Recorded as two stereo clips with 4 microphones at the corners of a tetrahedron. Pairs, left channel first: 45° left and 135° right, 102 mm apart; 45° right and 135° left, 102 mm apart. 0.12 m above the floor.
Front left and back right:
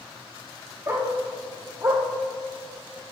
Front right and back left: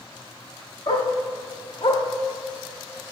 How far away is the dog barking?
About 1.5 m.